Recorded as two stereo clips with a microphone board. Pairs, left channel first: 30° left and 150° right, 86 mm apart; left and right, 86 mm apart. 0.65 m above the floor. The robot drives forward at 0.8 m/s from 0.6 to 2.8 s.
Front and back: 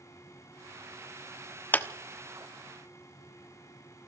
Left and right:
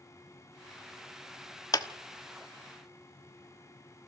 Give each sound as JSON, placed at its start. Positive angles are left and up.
{"t": 1.7, "sound": "a clap", "azimuth_deg": 90, "distance_m": 1.3}